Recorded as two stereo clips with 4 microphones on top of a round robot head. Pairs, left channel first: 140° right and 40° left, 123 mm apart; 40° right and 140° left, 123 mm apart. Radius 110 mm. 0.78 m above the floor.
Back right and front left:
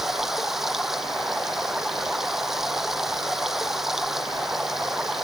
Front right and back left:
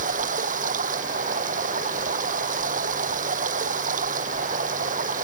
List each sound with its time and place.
0.0 s running water: 130° left